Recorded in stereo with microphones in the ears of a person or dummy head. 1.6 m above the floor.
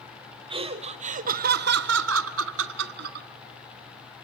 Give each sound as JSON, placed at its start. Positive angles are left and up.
{"t": 0.5, "sound": "laughter", "side_deg": -30, "distance_m": 1.5}